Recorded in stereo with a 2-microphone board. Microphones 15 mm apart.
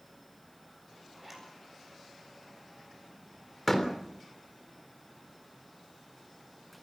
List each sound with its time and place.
1.1 s a zipper: 10° right (ahead or behind), 8 m
3.7 s a door slam: 15° left (ahead or behind), 3.5 m